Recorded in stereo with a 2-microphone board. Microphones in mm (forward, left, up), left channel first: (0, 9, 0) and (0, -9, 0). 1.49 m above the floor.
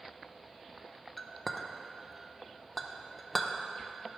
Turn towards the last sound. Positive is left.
turn(degrees=15)  # may be behind; listen again after turning